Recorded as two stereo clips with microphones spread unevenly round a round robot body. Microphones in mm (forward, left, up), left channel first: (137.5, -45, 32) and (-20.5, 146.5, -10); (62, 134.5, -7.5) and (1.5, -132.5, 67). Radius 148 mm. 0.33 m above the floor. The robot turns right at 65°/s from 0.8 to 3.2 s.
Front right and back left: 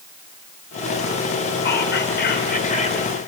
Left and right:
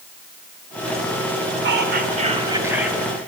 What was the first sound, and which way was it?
Whispering, 70° right.